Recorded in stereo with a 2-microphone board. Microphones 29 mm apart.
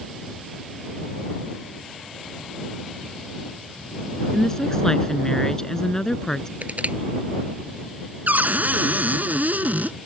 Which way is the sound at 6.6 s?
65° right (ahead or behind).